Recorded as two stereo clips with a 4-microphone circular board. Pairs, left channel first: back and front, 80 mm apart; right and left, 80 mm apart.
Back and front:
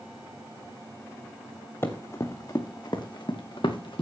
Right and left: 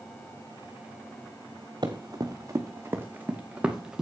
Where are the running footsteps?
120° left, 2.0 m; by 4.0 s 170° left, 2.5 m.